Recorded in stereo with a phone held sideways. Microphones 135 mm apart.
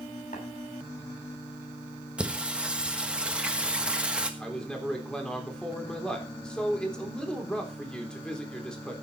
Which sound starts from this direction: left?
Tapping, at 0.3 s.